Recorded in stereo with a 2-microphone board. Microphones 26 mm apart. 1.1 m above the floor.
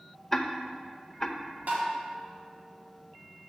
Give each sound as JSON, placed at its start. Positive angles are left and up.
{"t": 0.3, "sound": "ticking", "side_deg": 15, "distance_m": 0.6}
{"t": 1.7, "sound": "tapping", "side_deg": -85, "distance_m": 2.0}